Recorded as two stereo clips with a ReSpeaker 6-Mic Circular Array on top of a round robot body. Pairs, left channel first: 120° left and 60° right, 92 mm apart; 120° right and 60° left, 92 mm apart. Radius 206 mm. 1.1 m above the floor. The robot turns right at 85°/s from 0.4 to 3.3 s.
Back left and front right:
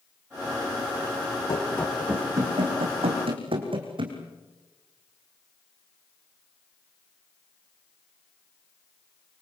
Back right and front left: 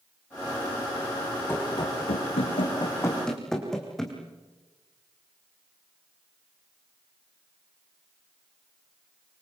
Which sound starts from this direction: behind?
Running footsteps, at 1.5 s.